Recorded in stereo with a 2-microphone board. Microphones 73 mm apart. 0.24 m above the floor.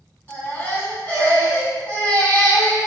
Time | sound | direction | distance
0.3 | a baby crying | 25° left (ahead or behind) | 1.6 m